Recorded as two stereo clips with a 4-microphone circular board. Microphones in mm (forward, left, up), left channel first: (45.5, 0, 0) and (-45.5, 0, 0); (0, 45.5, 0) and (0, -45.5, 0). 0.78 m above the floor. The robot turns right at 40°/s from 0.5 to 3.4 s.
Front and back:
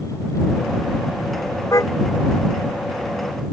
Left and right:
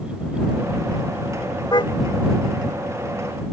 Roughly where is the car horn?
Ahead left.